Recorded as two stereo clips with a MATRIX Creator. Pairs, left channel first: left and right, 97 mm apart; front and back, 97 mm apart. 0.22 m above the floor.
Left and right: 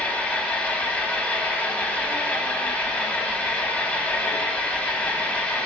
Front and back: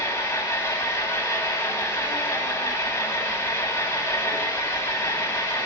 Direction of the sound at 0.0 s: 25° left.